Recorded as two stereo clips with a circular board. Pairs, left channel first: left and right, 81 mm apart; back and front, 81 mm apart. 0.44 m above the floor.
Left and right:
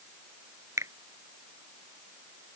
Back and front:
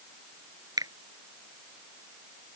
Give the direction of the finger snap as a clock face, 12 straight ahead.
1 o'clock.